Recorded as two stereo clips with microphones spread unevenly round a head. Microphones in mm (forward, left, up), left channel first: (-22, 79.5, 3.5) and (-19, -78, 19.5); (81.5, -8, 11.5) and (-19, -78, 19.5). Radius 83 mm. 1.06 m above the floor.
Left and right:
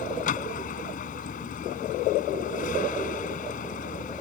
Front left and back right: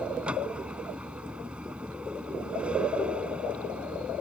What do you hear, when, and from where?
0.0 s a vehicle: 130° left